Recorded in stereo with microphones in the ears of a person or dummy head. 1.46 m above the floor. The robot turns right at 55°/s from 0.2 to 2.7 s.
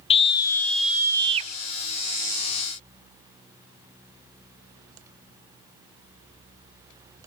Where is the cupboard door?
I don't hear a cupboard door.